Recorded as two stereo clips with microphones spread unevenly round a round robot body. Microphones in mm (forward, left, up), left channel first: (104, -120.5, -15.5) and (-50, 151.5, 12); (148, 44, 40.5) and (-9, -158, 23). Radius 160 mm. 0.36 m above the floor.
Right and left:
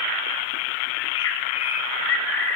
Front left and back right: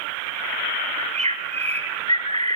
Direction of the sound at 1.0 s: 60° right.